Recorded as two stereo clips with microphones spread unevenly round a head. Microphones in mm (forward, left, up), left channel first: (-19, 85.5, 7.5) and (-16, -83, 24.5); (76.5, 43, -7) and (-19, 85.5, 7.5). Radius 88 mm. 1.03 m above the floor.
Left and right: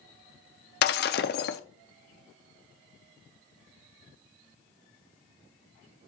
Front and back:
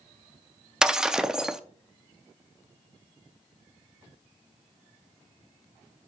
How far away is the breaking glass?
About 0.6 m.